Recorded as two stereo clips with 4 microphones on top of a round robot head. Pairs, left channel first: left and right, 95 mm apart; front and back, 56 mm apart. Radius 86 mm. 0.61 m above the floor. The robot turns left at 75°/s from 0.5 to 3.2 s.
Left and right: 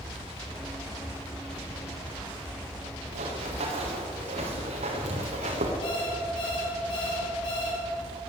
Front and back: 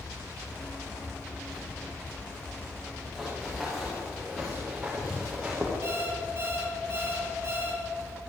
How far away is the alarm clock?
About 7 m.